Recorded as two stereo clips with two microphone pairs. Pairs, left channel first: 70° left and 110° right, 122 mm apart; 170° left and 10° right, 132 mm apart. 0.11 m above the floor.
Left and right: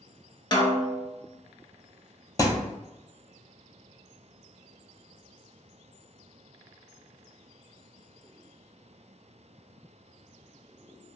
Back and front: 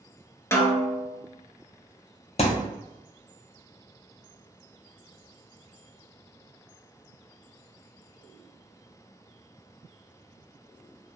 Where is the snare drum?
100° left, 0.5 m.